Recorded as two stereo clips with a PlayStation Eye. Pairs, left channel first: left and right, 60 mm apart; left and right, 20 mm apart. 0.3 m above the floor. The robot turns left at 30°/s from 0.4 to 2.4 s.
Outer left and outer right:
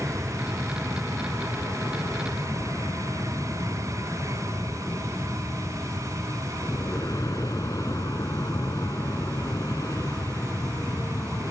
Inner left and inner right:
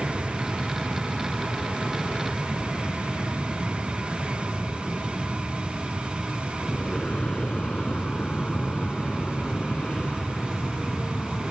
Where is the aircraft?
10° left (ahead or behind); by 11.5 s 65° left (ahead or behind).